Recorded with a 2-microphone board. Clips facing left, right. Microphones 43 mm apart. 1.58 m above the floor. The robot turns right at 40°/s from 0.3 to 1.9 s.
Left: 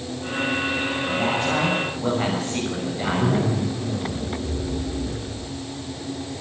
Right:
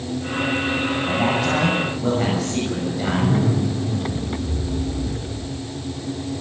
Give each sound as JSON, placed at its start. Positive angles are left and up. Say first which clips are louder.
{"t": 1.1, "sound": "a man speaking", "louder": "right 2 dB", "azimuth_deg": -25, "distance_m": 7.0}
{"t": 3.0, "sound": "a zipper", "louder": "right 1 dB", "side_deg": 75, "distance_m": 9.5}